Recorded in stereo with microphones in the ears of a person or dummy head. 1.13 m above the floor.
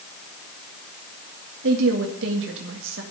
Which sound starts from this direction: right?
A woman speaking, at 1.6 s.